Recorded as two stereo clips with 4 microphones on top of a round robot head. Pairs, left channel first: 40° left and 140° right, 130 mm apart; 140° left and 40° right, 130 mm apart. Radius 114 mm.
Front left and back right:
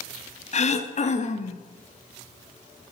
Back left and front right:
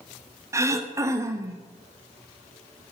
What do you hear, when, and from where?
0.5 s throat clearing: 25° left, 1.0 m